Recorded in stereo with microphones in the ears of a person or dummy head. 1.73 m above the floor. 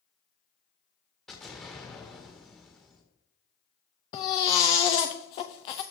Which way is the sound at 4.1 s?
20° left (ahead or behind).